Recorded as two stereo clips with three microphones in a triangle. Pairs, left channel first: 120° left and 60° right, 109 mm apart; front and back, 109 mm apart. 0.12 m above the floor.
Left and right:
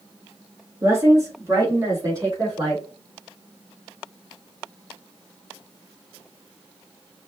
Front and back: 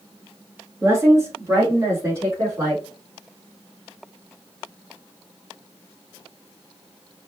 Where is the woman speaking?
120° right, 2 m.